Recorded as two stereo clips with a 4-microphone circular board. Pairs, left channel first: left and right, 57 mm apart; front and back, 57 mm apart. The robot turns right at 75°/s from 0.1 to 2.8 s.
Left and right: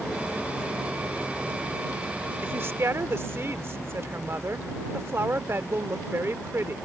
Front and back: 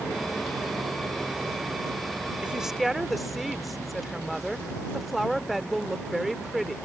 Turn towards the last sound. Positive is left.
turn(degrees=-90)